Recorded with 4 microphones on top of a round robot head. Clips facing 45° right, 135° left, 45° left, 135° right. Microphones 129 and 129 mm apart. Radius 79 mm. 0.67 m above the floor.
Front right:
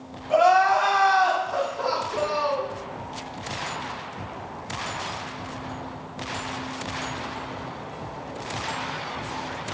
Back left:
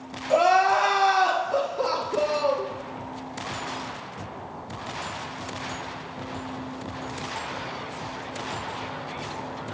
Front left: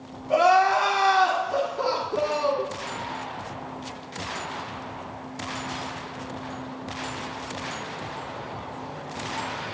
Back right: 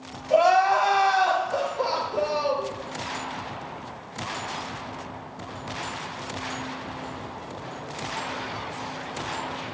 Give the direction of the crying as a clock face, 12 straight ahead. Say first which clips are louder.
Front right 1 dB, even; 9 o'clock.